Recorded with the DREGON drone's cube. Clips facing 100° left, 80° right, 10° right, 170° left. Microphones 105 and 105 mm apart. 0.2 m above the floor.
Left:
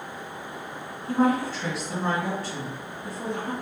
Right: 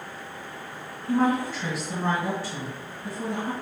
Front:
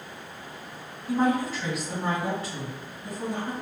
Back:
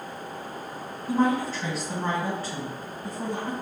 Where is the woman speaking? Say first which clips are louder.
Even, back 1 dB; 160° right, 1.8 m.